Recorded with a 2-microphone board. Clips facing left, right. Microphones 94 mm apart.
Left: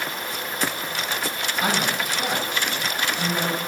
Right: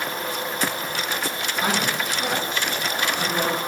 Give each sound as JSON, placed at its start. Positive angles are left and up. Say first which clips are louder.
{"t": 1.6, "sound": "a woman speaking", "louder": "even", "side_deg": 10, "distance_m": 5.0}